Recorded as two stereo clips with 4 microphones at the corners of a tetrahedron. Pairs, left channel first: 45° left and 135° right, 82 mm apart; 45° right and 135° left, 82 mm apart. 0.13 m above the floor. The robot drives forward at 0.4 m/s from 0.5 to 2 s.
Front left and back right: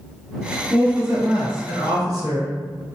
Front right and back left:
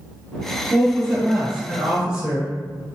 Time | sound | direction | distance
0.7 | a woman speaking | 130° right | 1.3 m